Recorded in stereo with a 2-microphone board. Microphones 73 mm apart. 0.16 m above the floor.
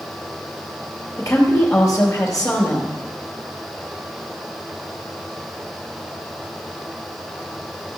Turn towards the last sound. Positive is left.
turn(degrees=40)  # may be behind; listen again after turning